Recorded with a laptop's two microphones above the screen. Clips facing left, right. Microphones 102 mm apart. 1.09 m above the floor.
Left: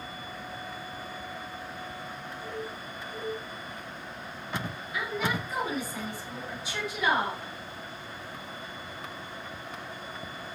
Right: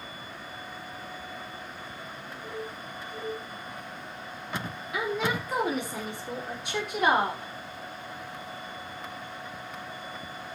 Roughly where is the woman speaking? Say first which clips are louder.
Right 3 dB; right.